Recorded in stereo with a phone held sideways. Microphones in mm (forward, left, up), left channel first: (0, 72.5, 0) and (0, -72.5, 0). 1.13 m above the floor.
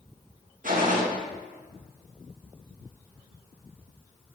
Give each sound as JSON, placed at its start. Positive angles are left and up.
{"t": 0.6, "sound": "a gunshot", "side_deg": -70, "distance_m": 1.6}